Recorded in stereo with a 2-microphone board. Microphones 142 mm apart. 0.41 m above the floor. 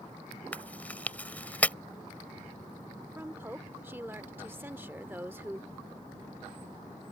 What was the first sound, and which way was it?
Chewing, 10° left (ahead or behind).